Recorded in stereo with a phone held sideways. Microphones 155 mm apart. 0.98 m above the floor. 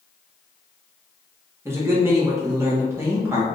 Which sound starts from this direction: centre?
A man speaking, at 1.6 s.